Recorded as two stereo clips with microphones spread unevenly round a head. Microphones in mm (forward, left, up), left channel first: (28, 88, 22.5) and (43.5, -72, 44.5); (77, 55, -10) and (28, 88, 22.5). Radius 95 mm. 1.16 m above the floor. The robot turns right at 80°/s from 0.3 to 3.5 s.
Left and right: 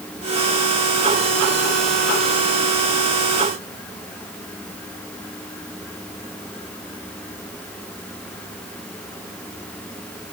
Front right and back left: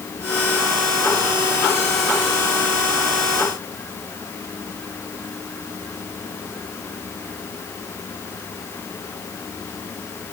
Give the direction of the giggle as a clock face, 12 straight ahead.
No giggle in this recording.